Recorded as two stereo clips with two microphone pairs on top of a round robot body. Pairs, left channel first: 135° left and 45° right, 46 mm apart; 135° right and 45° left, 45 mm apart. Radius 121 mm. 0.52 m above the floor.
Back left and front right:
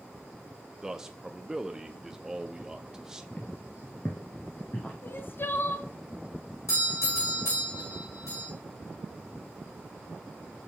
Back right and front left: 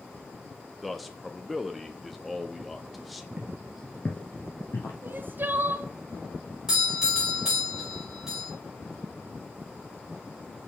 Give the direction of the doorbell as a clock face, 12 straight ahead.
8 o'clock.